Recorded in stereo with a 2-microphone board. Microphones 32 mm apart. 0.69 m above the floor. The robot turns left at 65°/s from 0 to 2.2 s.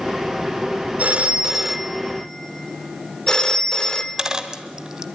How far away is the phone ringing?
About 1.2 m.